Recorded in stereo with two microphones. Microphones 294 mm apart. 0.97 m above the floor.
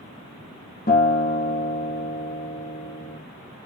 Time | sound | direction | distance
0.9 | a guitar | 30° left (ahead or behind) | 1.2 m